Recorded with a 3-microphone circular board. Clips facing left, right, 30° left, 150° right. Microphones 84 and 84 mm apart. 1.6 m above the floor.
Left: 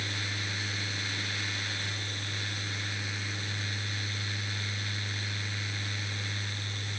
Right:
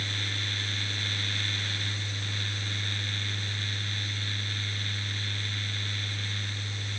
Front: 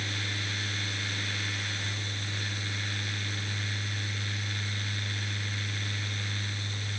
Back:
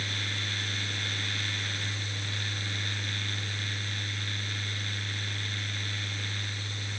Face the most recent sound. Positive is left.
No sound to turn to.